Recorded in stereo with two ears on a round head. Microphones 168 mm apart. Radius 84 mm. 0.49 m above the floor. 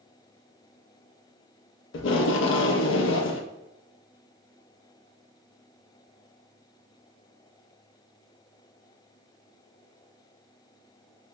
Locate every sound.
1.9 s tape being pulled: 75° left (ahead or behind), 0.5 m